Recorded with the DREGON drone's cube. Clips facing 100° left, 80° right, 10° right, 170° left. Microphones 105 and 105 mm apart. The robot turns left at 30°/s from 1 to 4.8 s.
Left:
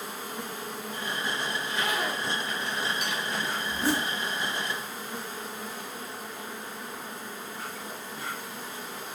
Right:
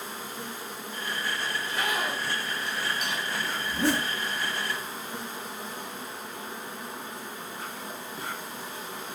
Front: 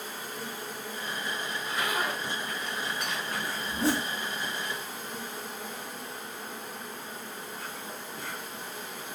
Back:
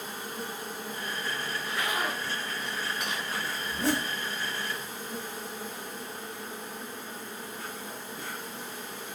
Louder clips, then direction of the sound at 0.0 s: Left 1 dB, back 1 dB; 110° left.